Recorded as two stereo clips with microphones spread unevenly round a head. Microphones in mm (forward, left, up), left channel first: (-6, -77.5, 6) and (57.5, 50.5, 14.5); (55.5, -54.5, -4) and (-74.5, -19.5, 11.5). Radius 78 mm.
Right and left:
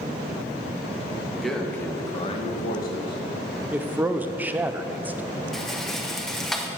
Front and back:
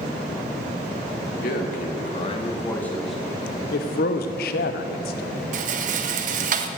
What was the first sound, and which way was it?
A man speaking, 25° right.